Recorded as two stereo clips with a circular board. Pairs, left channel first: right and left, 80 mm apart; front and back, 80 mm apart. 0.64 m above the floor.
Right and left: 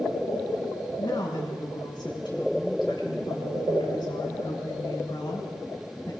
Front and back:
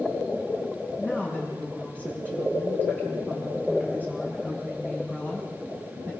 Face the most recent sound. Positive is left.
turn(degrees=-115)